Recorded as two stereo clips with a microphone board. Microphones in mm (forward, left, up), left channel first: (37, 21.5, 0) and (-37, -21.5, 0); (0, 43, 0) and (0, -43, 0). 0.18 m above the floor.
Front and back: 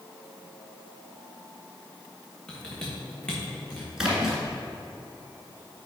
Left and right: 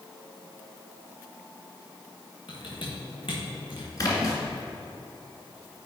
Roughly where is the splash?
Behind left.